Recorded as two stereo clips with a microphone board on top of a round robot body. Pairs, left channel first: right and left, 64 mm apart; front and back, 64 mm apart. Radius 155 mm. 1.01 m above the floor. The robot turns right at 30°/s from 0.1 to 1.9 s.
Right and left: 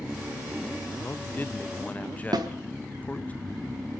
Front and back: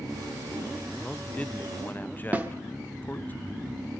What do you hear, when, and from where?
1.0 s a man speaking: 65° right, 0.8 m; by 3.3 s 35° right, 0.8 m
2.3 s a snare drum: 115° left, 1.0 m